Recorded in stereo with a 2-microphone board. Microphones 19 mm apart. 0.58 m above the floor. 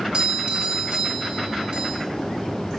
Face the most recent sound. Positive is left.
turn(degrees=-50)  # may be behind; listen again after turning